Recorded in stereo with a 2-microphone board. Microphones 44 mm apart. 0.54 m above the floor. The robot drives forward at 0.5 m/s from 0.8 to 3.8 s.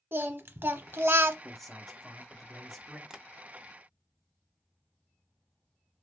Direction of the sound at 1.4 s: 5° left (ahead or behind).